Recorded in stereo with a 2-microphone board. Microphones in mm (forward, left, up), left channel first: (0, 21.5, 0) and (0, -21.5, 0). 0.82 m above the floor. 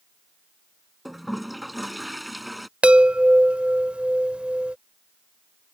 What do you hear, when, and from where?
1.1 s a toilet flushing: centre (ahead or behind)
2.8 s a chime: 30° right (ahead or behind)